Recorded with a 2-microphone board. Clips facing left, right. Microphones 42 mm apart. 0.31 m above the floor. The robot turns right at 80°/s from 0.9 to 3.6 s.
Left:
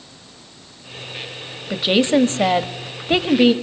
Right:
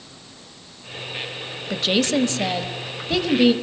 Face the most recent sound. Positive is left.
turn(degrees=165)